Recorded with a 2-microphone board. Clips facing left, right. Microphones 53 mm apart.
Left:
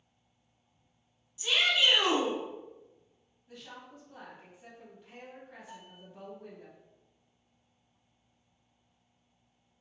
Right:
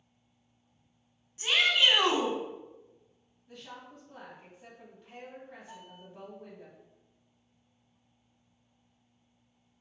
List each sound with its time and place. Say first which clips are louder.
1.4 s a shout: right 2 dB; 50° right (ahead or behind), 1.3 m
3.5 s a woman speaking: right 1 dB; centre (ahead or behind), 1.7 m
5.7 s a bell: right 1 dB; 5° left (ahead or behind), 1.8 m